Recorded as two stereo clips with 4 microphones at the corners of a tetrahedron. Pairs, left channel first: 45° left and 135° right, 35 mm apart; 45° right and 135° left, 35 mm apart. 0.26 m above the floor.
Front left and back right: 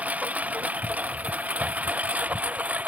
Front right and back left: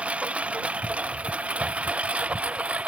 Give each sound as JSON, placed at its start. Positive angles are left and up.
{"t": 0.0, "sound": "a lawn mower", "azimuth_deg": -175}